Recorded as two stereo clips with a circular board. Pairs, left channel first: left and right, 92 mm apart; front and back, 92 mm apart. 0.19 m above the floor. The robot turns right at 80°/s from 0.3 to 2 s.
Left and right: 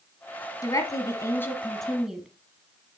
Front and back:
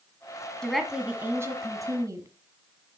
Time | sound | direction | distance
0.6 | a woman speaking | 75° left | 1.5 m